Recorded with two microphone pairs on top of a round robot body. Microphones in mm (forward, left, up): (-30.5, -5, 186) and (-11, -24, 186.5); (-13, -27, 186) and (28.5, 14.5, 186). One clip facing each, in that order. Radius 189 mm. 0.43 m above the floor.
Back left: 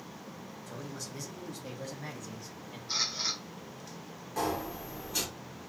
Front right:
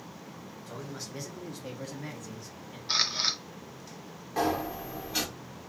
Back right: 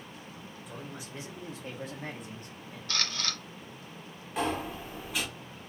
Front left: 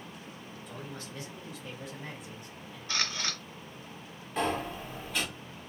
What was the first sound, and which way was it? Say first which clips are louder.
A man speaking: front right 2 dB, even; 50° right.